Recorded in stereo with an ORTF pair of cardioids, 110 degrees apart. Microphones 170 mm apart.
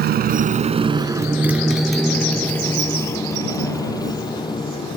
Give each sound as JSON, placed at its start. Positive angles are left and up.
{"t": 0.0, "sound": "a motorcycle", "azimuth_deg": -65}